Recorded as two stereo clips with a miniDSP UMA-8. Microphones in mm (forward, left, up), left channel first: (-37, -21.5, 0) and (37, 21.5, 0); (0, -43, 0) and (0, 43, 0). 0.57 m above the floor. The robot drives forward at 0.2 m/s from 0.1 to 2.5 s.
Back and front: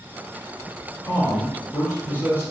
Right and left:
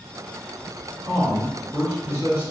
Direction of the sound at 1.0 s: 150° left.